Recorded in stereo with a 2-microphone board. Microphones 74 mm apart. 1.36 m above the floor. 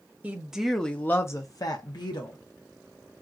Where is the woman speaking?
20° right (ahead or behind), 0.8 m; by 2.4 s 70° left (ahead or behind), 1.1 m.